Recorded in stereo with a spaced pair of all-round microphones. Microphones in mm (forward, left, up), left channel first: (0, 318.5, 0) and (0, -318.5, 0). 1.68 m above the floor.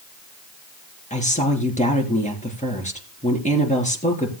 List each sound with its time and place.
1.1 s a woman speaking: 10° left (ahead or behind), 4 m